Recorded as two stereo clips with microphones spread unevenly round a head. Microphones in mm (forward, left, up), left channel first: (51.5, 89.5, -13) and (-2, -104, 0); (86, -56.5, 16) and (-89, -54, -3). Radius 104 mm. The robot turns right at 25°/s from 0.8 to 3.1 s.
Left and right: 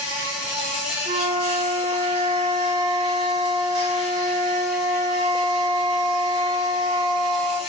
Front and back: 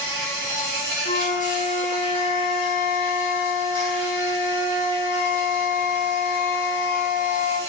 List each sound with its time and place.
0.0 s an insect: 120° left, 1.4 m; by 7.7 s 175° left, 1.4 m
1.1 s a flute: 65° right, 0.9 m; by 7.6 s 15° right, 0.9 m